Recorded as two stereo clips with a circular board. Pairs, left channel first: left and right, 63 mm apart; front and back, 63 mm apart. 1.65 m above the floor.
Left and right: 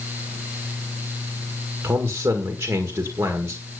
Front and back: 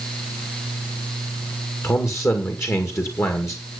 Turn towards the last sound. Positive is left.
turn(degrees=-40)